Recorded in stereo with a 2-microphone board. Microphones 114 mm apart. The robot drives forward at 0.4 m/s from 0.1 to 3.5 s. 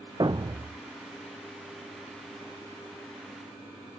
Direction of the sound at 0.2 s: 40° right (ahead or behind).